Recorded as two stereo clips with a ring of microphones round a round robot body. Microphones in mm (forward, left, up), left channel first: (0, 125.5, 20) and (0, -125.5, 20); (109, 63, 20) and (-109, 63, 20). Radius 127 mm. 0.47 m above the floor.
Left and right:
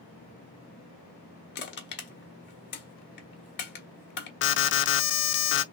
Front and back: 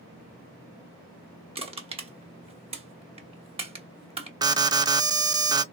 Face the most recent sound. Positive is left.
turn(degrees=110)